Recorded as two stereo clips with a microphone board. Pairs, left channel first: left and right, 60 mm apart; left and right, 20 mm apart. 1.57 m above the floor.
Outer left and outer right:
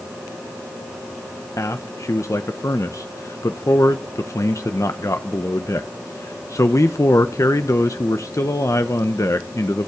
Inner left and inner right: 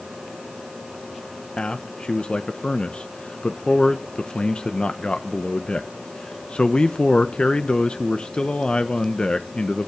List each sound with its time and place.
1.6 s a man speaking: 60° left (ahead or behind), 0.9 m